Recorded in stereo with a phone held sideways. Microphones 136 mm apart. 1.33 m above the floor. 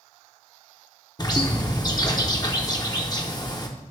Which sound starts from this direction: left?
A bird, at 1.2 s.